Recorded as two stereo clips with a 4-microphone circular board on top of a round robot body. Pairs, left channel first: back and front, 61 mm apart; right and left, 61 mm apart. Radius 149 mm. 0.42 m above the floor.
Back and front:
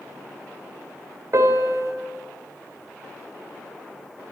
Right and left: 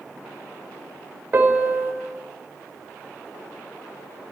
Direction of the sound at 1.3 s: 35° left.